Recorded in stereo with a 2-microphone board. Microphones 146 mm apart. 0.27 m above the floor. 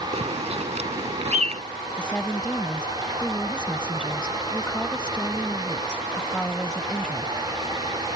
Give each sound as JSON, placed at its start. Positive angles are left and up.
{"t": 0.1, "sound": "a bird", "side_deg": -50}
{"t": 2.0, "sound": "a woman speaking", "side_deg": 5}